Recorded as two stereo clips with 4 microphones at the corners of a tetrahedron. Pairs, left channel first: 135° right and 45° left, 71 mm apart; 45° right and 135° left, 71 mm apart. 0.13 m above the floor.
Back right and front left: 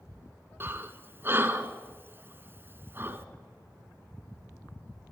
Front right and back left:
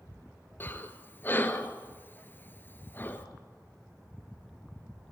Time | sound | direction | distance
0.6 | breathing | straight ahead | 1.4 m